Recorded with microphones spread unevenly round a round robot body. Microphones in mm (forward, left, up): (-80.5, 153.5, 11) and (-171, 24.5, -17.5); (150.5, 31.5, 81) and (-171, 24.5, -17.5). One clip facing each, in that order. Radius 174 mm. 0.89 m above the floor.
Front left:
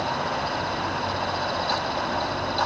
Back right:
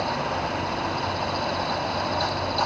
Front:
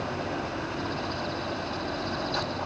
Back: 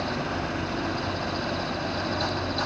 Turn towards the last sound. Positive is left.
No sound to turn to.